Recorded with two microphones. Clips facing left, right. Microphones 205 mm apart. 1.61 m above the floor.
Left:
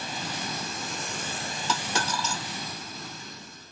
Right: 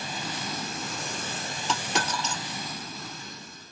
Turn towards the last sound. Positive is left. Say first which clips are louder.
# right 1 dB
turn(degrees=-20)  # may be behind; listen again after turning